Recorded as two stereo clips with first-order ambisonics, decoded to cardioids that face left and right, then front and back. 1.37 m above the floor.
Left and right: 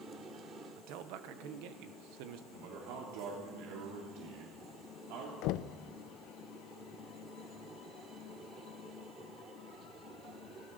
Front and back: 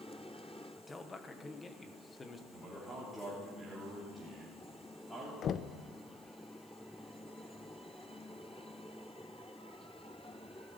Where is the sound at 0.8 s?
75° right, 1.2 m.